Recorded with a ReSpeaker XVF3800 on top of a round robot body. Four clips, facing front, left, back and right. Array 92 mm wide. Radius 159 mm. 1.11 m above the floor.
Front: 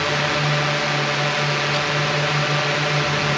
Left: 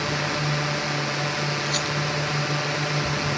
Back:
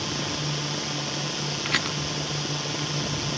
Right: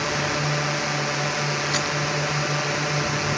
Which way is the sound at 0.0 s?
10° right.